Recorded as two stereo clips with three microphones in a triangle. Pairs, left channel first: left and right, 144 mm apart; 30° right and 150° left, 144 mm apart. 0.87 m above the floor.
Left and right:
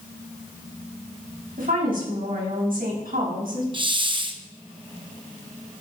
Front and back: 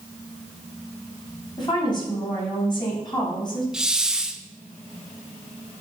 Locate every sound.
1.6 s a woman speaking: 90° right, 5.5 m
3.7 s a hiss: 125° right, 0.7 m